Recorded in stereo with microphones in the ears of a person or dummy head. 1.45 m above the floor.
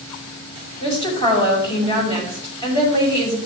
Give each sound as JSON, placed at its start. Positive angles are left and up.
{"t": 0.8, "sound": "a woman speaking", "side_deg": 25, "distance_m": 6.0}